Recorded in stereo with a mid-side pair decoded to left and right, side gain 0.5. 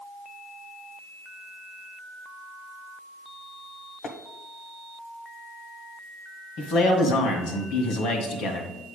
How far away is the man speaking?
About 1.9 m.